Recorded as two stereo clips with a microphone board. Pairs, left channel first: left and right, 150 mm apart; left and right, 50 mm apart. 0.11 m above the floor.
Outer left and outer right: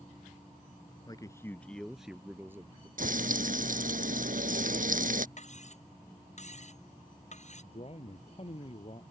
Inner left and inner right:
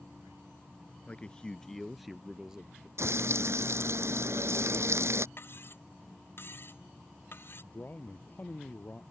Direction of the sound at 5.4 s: 50° left (ahead or behind).